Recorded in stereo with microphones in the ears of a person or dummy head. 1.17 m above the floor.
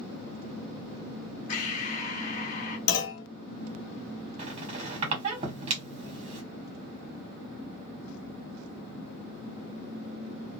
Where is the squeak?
40° right (ahead or behind), 1.5 m.